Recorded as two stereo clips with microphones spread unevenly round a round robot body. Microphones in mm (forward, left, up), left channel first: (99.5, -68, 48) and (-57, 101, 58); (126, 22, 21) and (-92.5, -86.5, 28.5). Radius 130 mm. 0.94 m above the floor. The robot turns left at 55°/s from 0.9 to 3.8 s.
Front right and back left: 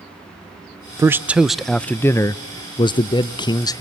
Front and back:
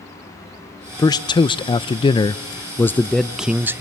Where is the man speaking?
70° left, 0.5 m; by 3.8 s 85° right, 0.5 m.